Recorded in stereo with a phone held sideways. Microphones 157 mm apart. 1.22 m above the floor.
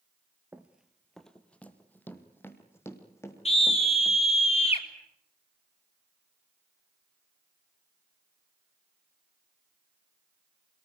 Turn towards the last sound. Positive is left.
turn(degrees=40)  # may be behind; listen again after turning